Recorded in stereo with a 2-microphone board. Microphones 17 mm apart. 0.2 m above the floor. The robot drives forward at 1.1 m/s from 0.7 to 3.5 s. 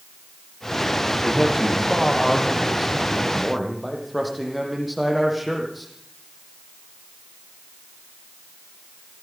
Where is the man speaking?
10° right (ahead or behind), 5 m; by 5.9 s 5° right (ahead or behind), 7.5 m.